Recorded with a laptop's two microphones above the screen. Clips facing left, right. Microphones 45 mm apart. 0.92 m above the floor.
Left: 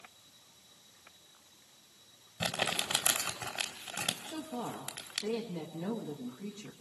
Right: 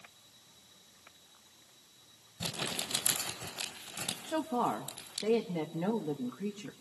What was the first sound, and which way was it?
Crumpling, 80° left.